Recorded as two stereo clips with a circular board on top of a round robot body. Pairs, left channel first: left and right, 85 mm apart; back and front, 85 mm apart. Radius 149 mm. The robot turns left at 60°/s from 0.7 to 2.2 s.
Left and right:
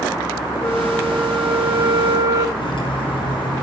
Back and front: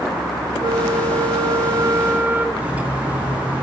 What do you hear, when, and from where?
0.6 s a flute: 30° left, 1.6 m; by 2.5 s 60° right, 1.6 m
2.6 s cutlery clinking: 75° left, 3 m